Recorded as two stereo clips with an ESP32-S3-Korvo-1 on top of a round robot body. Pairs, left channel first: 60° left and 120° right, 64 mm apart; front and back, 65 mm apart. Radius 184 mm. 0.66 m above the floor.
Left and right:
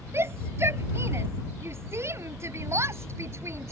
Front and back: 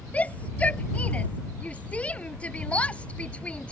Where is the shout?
70° right.